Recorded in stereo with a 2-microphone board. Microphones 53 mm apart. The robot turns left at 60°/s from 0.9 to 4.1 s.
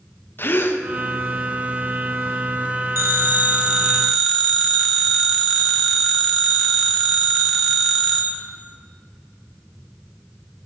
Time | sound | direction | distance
0.4 | a gasp | 45° left (ahead or behind) | 0.6 m
3.0 | a phone ringing | 120° right | 1.3 m